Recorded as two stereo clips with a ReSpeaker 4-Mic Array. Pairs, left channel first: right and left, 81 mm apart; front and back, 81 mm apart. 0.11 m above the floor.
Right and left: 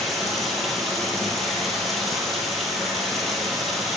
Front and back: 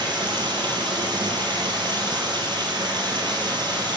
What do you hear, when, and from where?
0.0 s running water: 175° right, 1.2 m